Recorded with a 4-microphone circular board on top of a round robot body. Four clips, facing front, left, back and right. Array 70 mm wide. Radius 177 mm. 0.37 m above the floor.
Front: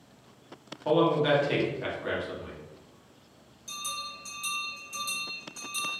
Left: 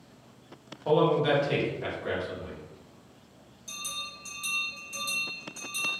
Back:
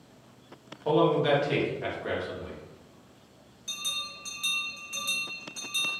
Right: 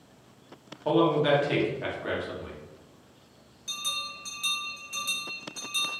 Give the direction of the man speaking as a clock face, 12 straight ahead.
2 o'clock.